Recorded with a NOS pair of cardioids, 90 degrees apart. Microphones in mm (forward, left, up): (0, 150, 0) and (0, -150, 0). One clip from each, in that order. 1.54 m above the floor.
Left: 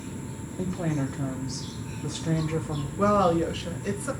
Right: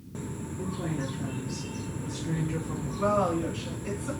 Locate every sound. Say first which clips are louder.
0.6 s a woman speaking: left 4 dB; 40° left, 0.9 m
3.0 s a woman speaking: left 4 dB; 40° left, 1.5 m